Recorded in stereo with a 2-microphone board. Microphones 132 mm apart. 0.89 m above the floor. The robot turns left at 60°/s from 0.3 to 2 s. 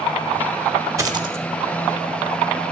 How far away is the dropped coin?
About 1.1 m.